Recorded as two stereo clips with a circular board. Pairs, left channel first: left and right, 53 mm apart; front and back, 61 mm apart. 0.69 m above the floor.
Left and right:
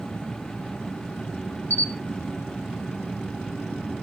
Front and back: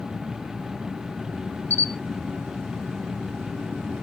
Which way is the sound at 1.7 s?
45° left.